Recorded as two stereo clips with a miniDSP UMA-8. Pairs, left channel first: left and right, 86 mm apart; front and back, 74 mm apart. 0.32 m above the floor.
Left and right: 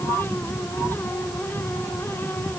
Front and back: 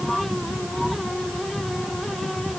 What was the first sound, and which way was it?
Only background noise.